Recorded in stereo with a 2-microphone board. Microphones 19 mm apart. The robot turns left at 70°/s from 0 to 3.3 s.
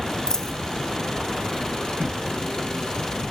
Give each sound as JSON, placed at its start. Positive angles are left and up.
{"t": 0.3, "sound": "a dropped coin", "side_deg": 40, "distance_m": 0.8}